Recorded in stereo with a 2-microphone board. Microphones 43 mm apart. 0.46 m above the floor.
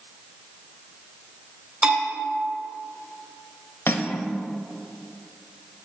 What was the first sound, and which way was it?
A bell, 15° right (ahead or behind).